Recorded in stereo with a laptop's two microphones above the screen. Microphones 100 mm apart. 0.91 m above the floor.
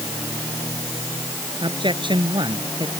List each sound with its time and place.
1.6 s a man speaking: 55° right (ahead or behind); by 2.9 s 50° right (ahead or behind)